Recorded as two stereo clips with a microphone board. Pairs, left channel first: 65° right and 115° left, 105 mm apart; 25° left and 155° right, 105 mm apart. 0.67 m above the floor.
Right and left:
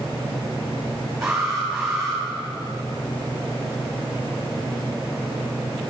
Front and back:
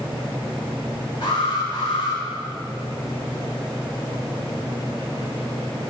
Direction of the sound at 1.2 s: 25° left.